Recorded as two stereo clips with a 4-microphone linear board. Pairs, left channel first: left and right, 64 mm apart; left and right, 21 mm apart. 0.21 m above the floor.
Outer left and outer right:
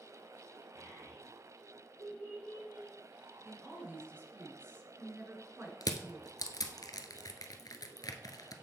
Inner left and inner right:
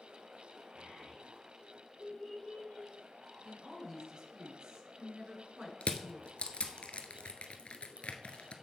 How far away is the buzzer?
I don't hear a buzzer.